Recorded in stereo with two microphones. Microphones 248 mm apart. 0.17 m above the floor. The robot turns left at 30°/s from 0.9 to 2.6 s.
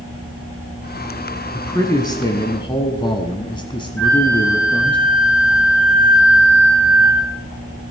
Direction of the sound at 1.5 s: 10° left (ahead or behind).